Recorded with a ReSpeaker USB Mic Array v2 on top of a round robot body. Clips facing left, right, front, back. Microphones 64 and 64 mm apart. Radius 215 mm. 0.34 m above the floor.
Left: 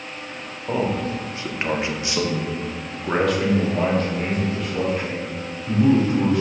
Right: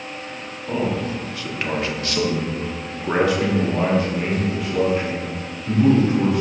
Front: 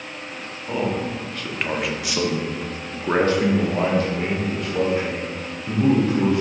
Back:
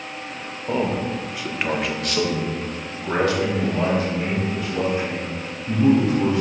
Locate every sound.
0.7 s a man speaking: 130° left, 1.5 m; by 6.4 s 25° right, 2.5 m